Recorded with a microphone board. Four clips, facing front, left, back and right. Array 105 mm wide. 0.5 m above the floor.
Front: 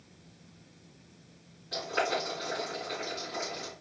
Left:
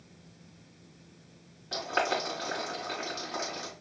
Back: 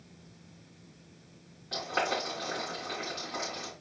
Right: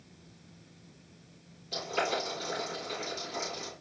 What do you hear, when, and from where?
1.7 s boiling: 115° left, 3 m